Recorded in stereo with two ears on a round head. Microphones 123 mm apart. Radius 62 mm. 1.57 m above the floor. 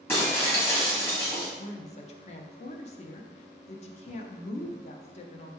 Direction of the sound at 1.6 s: 55° left (ahead or behind).